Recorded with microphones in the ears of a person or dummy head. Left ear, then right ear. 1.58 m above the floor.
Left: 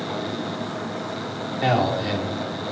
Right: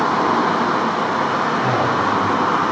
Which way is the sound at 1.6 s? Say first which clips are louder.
Right 4 dB; 30° left (ahead or behind).